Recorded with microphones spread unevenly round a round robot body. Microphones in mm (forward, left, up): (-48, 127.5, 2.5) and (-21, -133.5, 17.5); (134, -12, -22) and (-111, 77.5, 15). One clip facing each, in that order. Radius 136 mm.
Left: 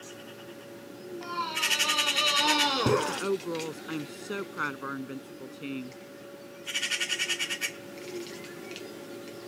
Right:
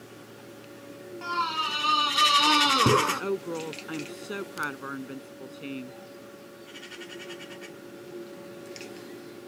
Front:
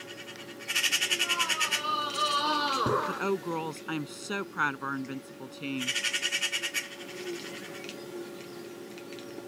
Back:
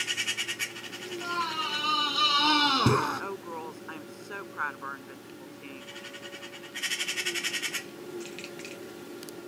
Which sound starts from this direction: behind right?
A scream, at 1.2 s.